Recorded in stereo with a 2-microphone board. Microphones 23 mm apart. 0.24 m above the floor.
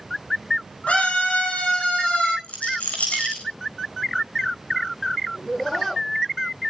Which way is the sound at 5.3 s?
25° left (ahead or behind).